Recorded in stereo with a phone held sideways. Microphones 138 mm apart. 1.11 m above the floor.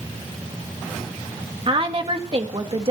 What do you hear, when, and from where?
1.7 s a woman speaking: 45° right (ahead or behind), 2.0 m